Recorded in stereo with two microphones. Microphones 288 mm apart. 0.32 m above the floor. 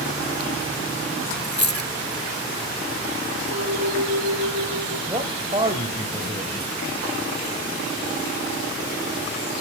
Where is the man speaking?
20° right (ahead or behind), 1.2 m.